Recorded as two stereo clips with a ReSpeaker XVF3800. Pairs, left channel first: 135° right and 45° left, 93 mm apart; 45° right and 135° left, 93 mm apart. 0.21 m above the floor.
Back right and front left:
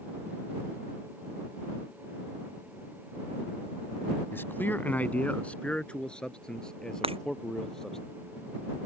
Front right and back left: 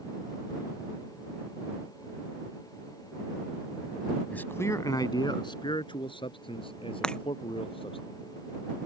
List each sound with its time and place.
4.3 s a man speaking: 100° right; by 8.0 s 50° right
7.0 s breaking glass: 35° left